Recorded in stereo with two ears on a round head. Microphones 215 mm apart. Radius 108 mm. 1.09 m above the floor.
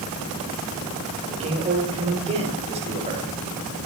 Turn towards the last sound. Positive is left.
turn(degrees=-25)  # may be behind; listen again after turning